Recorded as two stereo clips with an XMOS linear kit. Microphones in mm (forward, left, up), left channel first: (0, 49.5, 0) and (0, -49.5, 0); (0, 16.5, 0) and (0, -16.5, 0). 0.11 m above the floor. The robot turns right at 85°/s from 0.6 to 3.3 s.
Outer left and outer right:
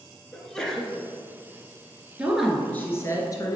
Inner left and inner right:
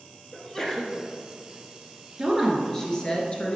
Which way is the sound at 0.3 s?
5° left (ahead or behind).